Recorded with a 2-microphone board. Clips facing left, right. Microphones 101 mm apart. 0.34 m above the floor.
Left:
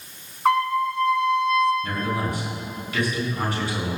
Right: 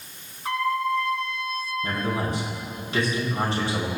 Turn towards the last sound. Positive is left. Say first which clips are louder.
# left 1 dB
turn(degrees=-30)  # may be behind; listen again after turning